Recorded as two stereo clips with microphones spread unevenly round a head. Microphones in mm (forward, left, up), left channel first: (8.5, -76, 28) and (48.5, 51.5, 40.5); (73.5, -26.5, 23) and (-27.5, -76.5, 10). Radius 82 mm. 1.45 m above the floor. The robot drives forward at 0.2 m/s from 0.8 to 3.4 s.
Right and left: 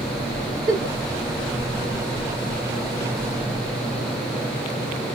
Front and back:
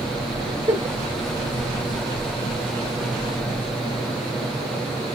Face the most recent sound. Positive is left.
turn(degrees=145)